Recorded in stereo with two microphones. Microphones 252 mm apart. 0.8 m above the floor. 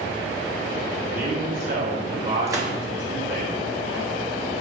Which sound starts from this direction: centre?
A gunshot, at 2.5 s.